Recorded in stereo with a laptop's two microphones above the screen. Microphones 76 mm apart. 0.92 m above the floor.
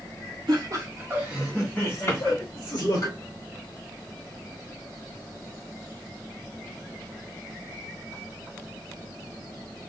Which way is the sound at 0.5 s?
60° right (ahead or behind).